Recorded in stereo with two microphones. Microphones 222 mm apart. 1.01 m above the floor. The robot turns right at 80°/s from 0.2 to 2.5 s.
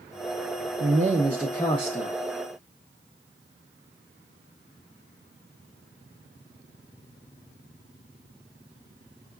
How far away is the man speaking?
About 0.6 m.